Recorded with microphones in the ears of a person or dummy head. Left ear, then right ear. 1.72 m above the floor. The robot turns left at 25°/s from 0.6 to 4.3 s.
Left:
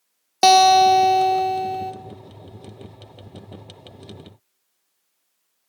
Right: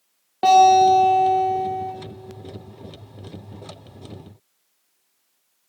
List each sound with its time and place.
0.4 s a guitar: 80° left, 0.6 m; by 1.9 s 50° left, 0.6 m